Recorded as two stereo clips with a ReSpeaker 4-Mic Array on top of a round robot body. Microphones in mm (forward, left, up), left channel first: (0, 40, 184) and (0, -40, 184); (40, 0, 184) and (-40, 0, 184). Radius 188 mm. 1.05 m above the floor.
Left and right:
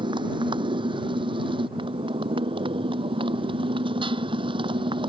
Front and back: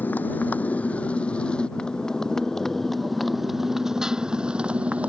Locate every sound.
0.0 s a motorcycle: 70° right; by 5.1 s 105° right